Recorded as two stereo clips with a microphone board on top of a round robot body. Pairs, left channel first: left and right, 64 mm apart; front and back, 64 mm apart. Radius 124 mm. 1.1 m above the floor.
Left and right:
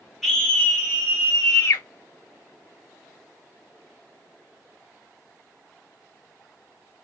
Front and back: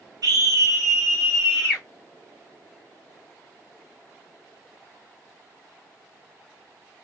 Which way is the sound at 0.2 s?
Straight behind.